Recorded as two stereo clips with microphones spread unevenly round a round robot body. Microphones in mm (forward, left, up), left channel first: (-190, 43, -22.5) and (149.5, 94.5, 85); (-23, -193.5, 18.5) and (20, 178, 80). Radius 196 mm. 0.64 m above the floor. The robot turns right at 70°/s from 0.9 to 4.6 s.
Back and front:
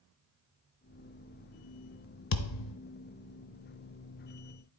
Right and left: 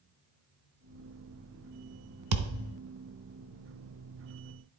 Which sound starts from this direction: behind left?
A thud, at 2.3 s.